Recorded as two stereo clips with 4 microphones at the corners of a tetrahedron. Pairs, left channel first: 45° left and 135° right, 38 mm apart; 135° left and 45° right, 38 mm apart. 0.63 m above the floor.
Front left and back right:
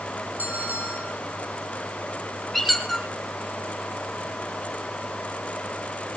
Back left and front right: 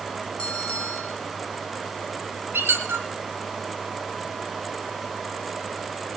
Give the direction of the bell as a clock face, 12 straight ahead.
5 o'clock.